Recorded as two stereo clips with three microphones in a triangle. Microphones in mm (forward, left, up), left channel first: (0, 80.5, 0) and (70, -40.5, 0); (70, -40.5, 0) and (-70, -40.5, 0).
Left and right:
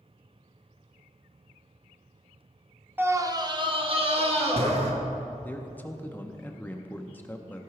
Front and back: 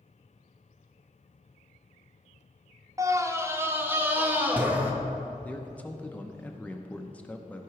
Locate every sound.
3.0 s a scream: 125° right, 0.7 m; by 4.9 s 100° right, 2.0 m
5.4 s a man speaking: 60° left, 0.7 m